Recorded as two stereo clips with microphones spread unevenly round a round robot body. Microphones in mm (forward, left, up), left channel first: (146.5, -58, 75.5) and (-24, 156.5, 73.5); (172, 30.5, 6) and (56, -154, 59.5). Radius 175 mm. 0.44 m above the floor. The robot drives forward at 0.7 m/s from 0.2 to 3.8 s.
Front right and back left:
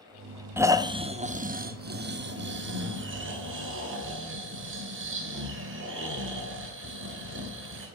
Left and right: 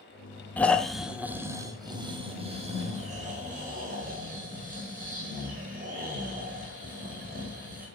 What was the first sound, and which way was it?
Snoring, 60° left.